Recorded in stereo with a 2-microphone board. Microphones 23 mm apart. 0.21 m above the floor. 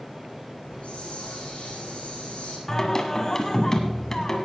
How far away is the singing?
About 1.8 m.